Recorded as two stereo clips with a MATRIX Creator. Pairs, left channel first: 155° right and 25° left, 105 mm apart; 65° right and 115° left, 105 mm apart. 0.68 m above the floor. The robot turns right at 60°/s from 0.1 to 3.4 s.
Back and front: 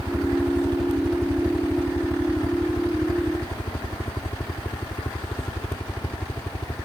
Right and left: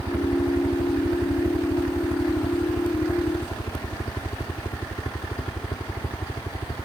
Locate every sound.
0.0 s a helicopter: 50° left; by 6.9 s 105° right